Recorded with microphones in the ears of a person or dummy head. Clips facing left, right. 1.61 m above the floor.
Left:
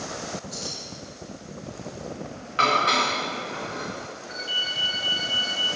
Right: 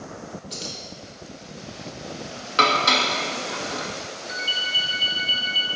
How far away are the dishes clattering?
About 1.5 m.